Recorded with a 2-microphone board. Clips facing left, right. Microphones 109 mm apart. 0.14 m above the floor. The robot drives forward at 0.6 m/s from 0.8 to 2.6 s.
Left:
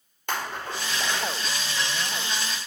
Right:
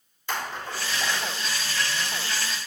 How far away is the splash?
About 4.5 m.